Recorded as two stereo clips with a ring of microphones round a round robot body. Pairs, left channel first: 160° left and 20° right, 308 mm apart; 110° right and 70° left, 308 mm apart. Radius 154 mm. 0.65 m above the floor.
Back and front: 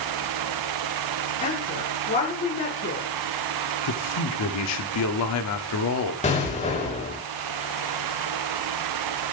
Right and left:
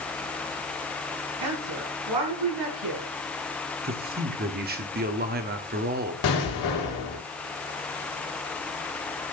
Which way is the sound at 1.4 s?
90° left.